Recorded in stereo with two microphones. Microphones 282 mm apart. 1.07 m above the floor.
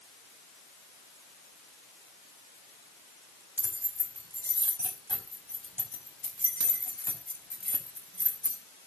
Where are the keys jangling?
5° left (ahead or behind), 5 m; by 8.6 s 45° left (ahead or behind), 5 m.